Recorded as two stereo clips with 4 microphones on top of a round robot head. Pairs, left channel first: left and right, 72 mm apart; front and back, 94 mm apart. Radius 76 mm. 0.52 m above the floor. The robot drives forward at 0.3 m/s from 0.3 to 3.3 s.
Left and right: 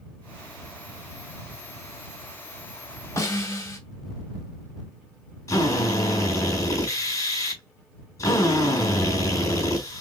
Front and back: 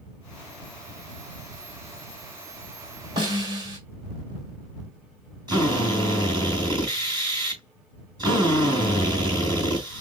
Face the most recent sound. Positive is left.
turn(degrees=135)